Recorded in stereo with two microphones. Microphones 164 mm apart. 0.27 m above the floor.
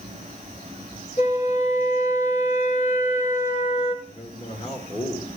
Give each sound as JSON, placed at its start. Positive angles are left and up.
{"t": 1.2, "sound": "a flute", "side_deg": 40, "distance_m": 3.5}
{"t": 4.0, "sound": "a man speaking", "side_deg": 40, "distance_m": 4.0}